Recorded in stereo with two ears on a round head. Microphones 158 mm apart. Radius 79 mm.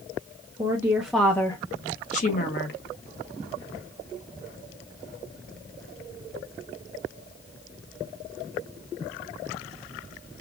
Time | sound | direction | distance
0.6 | a woman speaking | 20° right (ahead or behind) | 1.1 m